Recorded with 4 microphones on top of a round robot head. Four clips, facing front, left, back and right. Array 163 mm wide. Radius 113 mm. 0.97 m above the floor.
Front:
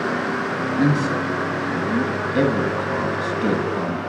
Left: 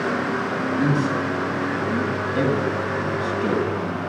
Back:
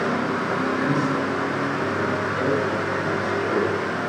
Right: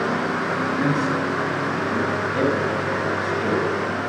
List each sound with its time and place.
0.8 s a man speaking: straight ahead, 6.5 m